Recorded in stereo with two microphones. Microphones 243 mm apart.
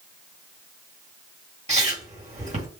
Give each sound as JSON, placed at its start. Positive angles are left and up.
{"t": 1.7, "sound": "chewing", "side_deg": -30, "distance_m": 1.7}